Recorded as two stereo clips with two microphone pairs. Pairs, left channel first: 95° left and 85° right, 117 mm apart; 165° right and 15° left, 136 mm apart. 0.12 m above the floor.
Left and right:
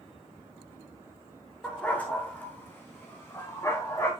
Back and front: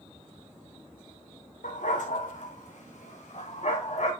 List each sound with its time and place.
1.6 s a dog barking: 175° left, 2.0 m; by 4.1 s 160° left, 3.5 m